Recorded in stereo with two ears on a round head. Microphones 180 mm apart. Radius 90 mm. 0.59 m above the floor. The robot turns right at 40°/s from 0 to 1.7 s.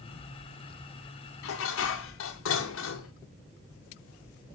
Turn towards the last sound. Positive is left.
turn(degrees=70)  # may be behind; listen again after turning